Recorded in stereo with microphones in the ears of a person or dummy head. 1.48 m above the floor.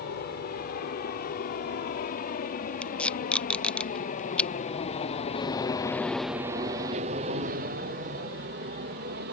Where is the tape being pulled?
10° left (ahead or behind).